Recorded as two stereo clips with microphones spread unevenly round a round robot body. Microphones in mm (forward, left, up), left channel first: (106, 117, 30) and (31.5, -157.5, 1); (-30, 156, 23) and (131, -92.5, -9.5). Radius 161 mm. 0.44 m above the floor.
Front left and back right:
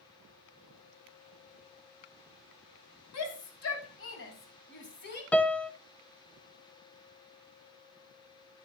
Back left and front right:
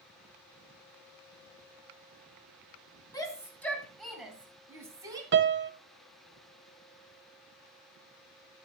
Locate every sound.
3.1 s a shout: 45° left, 3 m; by 5.2 s 20° left, 3.5 m
5.3 s a piano: 15° right, 0.7 m